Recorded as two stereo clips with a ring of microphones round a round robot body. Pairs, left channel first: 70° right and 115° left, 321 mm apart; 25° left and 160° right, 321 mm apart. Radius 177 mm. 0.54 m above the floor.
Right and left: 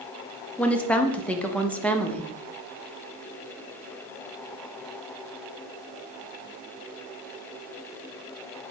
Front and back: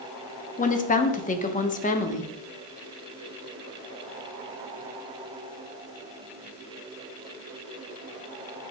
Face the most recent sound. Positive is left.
turn(degrees=15)